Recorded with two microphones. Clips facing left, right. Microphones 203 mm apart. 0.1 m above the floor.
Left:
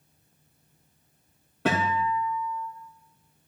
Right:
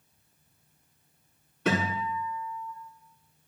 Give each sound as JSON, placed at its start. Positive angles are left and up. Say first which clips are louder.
{"t": 1.6, "sound": "a guitar", "louder": "left 2 dB", "side_deg": 80, "distance_m": 5.0}